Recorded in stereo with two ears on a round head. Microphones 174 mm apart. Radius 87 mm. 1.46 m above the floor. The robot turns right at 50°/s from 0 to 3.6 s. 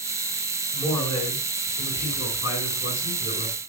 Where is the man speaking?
5° left, 6 m; by 3.6 s 145° left, 6 m.